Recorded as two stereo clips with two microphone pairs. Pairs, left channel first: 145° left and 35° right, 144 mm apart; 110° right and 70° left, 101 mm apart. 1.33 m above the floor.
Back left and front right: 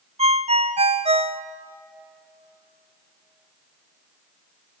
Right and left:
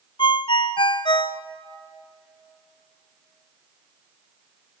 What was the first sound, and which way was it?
A ringtone, 80° right.